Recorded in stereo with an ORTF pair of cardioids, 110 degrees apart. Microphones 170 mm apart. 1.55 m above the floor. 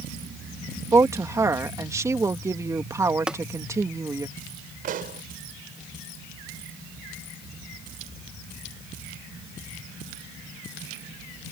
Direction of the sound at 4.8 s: 55° right.